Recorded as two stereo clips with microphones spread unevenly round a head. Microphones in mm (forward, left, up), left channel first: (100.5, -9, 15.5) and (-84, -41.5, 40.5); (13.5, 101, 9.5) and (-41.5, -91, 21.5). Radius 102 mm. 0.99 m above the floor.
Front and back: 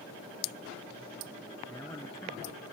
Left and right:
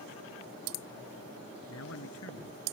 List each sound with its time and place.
1.7 s a man speaking: 90° left